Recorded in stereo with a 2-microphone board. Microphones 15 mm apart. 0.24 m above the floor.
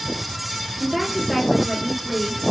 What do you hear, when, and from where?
0.8 s a woman speaking: 30° right (ahead or behind), 4 m